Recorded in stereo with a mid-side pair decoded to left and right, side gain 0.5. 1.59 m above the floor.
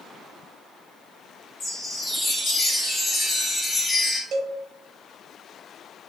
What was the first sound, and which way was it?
A chime, 35° left.